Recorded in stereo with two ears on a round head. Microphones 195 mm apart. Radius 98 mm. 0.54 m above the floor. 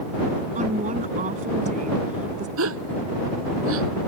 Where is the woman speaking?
35° right (ahead or behind).